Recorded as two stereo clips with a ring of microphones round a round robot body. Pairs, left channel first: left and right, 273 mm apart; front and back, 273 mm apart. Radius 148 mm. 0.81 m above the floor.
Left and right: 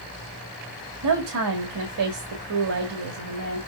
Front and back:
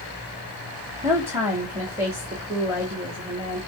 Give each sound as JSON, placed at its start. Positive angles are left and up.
{"t": 1.0, "sound": "a woman speaking", "azimuth_deg": -100, "distance_m": 1.9}